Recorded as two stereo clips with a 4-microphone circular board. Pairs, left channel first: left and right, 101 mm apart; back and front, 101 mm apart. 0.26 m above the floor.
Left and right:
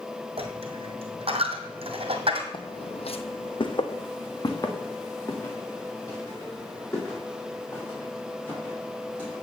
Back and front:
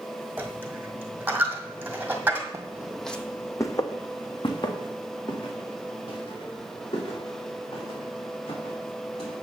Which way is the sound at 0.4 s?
75° right.